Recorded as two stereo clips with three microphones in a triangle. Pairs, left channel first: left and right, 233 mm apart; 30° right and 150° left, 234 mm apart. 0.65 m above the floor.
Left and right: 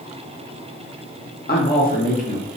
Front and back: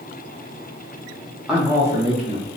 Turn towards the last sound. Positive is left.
turn(degrees=130)